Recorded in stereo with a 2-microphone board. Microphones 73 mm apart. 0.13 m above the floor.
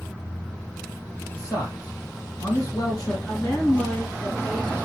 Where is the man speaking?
55° left (ahead or behind), 2.5 m.